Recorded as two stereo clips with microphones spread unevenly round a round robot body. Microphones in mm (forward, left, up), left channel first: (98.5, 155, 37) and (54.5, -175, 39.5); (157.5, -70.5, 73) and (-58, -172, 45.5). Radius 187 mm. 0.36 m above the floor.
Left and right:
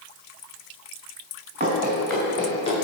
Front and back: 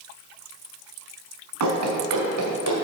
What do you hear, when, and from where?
1.6 s running footsteps: 170° right, 1.6 m; by 2.8 s 155° left, 3 m